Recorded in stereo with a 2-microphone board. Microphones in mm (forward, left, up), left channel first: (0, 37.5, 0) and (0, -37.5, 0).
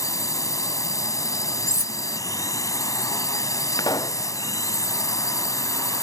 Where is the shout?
No shout in this recording.